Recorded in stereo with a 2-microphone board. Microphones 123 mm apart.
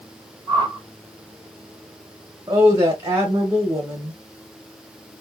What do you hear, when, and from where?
0.5 s a whoosh: 40° left (ahead or behind), 1.6 m
2.5 s a woman speaking: 25° right (ahead or behind), 1.0 m